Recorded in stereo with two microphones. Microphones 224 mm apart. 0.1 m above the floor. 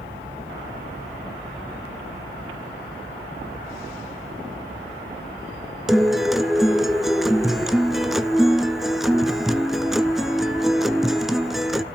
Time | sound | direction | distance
5.9 | a guitar | centre (ahead or behind) | 0.6 m